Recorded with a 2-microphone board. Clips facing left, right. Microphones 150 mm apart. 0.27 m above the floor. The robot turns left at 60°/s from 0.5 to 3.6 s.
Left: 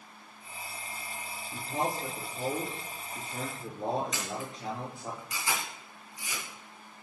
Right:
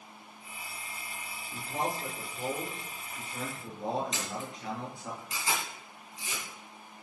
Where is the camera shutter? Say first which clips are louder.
Left 1 dB; 25° right (ahead or behind), 3.5 m.